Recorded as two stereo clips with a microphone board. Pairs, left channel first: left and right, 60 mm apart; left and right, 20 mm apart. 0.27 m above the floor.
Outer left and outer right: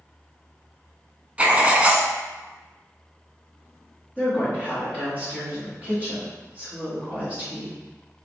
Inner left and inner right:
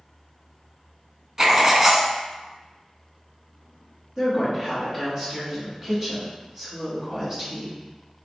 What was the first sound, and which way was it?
Writing, 20° right (ahead or behind).